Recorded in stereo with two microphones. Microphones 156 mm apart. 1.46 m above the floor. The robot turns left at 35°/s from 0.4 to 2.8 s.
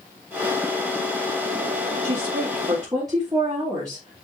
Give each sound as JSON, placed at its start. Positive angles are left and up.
{"t": 2.0, "sound": "a woman speaking", "side_deg": -55, "distance_m": 3.0}